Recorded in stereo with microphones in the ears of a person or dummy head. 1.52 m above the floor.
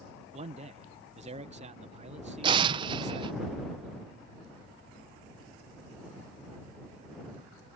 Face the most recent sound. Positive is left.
turn(degrees=-30)  # may be behind; listen again after turning